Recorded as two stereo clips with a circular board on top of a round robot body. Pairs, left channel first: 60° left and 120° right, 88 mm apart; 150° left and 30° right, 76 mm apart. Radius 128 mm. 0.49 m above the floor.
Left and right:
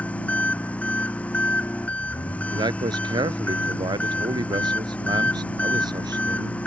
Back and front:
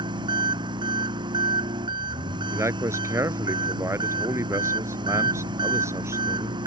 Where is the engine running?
15° right.